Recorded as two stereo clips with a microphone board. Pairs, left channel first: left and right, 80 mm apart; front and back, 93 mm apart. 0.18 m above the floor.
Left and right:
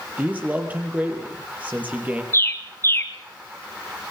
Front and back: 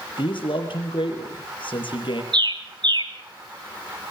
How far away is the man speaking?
About 4.5 m.